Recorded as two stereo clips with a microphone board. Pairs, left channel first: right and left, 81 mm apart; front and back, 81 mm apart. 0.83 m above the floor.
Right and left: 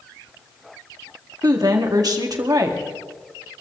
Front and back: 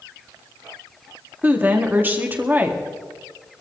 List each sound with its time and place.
1.4 s a woman speaking: 115° left, 1.9 m